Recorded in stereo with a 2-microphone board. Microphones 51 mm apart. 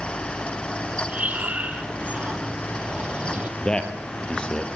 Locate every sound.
1.1 s breathing: 30° right (ahead or behind), 2.0 m
3.6 s a man speaking: 20° left (ahead or behind), 3 m